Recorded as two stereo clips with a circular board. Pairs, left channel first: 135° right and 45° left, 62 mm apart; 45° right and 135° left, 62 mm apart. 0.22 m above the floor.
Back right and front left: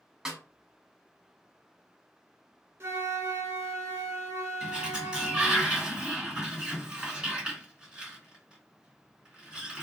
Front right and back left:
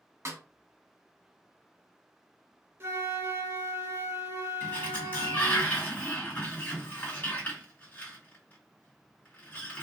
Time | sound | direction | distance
0.2 | a snare drum | 120° left | 0.9 m
2.8 | a flute | 90° left | 0.7 m
4.6 | a sliding door | 20° right | 1.9 m